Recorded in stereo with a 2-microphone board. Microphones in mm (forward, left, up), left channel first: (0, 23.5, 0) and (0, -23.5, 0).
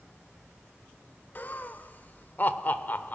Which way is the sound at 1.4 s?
35° left (ahead or behind).